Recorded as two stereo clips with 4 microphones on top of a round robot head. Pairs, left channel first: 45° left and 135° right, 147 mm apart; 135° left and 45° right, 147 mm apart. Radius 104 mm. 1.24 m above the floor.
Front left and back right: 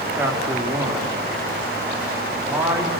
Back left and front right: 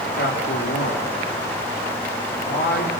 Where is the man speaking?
145° left, 4 m.